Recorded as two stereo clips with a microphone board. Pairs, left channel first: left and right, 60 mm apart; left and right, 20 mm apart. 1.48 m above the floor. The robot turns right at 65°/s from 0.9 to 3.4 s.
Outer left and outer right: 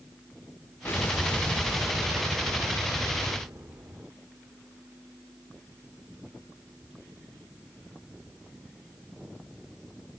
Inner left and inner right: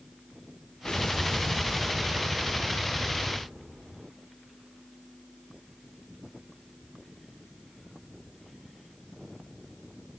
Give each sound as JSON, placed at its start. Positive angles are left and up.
{"t": 0.8, "sound": "an explosion", "azimuth_deg": 125, "distance_m": 1.6}